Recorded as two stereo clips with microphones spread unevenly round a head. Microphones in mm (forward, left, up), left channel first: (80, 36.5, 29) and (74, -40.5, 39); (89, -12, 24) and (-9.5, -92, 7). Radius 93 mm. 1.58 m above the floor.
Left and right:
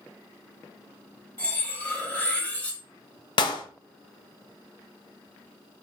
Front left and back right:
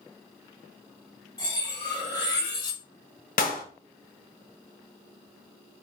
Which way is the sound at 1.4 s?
15° left.